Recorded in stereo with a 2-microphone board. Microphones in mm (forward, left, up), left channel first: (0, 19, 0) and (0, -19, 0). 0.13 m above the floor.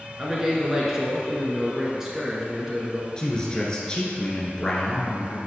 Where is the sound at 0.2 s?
15° right (ahead or behind), 1.5 m.